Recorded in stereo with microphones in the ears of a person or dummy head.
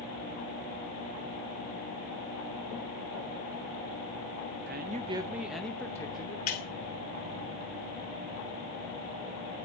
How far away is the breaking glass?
About 1.3 m.